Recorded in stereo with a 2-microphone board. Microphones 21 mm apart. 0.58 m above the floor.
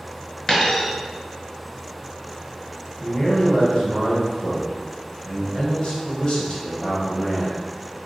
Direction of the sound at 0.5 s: 20° left (ahead or behind).